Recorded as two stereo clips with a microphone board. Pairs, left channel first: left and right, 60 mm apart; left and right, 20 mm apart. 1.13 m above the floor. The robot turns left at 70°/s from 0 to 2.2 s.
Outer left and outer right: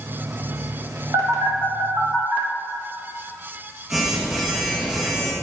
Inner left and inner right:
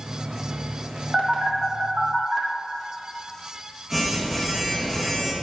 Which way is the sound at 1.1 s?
75° right (ahead or behind).